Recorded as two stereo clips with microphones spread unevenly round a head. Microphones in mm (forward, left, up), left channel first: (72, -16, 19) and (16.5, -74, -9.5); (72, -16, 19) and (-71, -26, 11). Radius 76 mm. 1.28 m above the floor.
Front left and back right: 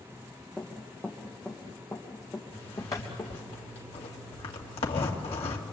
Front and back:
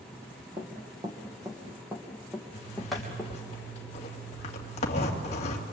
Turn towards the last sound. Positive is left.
turn(degrees=55)